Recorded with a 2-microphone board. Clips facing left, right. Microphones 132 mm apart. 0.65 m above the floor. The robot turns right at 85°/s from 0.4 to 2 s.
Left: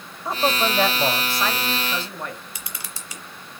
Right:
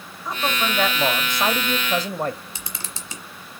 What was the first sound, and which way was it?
A man speaking, 130° left.